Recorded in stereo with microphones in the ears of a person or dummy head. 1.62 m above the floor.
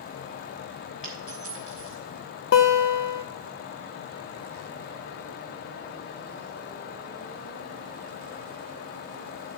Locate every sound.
1.0 s a dropped coin: 35° left (ahead or behind), 3 m
2.5 s a guitar: 65° left (ahead or behind), 0.9 m